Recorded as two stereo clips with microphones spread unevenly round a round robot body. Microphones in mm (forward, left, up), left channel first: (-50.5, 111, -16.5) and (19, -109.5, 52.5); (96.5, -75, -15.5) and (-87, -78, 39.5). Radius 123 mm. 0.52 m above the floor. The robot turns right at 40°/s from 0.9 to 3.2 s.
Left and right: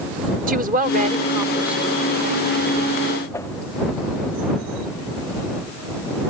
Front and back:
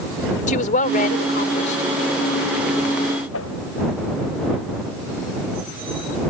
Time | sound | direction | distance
0.5 | a woman speaking | 10° right | ?
3.3 | a whoosh | 25° left | ?